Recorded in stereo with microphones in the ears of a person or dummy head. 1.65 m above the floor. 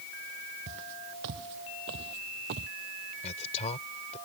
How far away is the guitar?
I don't hear a guitar.